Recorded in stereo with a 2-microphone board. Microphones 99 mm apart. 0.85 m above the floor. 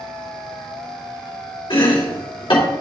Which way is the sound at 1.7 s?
55° left (ahead or behind).